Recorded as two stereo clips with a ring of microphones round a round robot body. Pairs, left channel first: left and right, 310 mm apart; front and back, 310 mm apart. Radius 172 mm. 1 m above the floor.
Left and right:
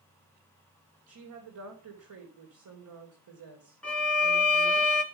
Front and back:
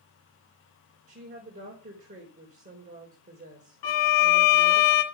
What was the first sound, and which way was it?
A woman speaking, 115° right.